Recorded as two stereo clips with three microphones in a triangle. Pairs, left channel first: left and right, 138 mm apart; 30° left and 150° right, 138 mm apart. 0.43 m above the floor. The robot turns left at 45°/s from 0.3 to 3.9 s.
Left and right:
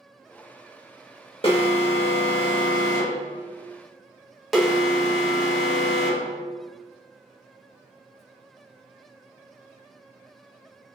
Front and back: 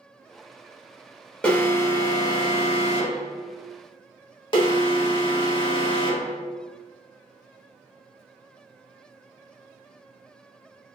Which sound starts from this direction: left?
An alarm, at 1.4 s.